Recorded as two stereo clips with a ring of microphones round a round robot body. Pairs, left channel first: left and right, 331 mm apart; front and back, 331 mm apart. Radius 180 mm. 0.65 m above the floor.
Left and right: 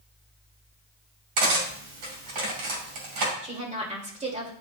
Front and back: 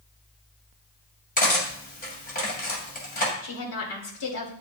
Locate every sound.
1.4 s cutlery clinking: 65° right, 2 m
3.4 s a woman speaking: 20° right, 2.5 m